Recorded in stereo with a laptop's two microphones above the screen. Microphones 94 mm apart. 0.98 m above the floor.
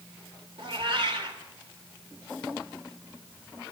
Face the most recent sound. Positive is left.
turn(degrees=-65)  # may be behind; listen again after turning